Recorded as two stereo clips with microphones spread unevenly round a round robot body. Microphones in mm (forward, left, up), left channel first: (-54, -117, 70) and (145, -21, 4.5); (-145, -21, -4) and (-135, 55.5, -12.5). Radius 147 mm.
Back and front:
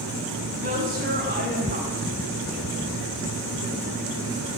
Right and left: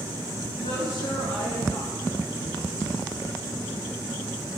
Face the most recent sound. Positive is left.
turn(degrees=-25)